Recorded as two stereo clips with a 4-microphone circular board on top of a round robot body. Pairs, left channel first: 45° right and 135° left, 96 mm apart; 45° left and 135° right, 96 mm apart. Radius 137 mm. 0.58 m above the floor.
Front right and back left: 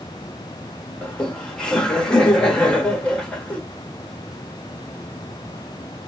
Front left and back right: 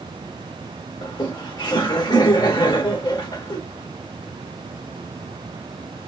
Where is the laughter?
35° left, 1.2 m.